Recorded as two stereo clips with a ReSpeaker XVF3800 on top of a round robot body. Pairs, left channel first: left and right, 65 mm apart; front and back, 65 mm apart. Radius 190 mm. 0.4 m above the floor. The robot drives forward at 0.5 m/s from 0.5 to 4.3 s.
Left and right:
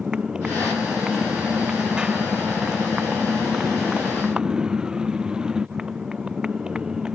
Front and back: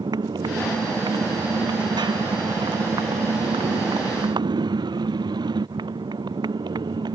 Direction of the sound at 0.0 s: 170° right.